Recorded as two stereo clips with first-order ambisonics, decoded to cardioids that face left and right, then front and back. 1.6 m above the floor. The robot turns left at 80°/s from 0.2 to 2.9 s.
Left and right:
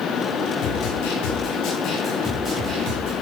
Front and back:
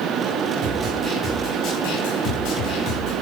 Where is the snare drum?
135° left, 5.5 m; by 3.1 s 50° right, 5.5 m.